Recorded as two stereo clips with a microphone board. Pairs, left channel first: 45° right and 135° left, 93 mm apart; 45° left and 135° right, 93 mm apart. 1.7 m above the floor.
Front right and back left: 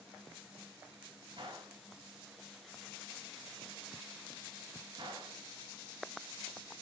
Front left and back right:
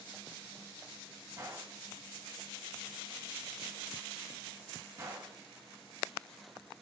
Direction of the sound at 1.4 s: 165° left.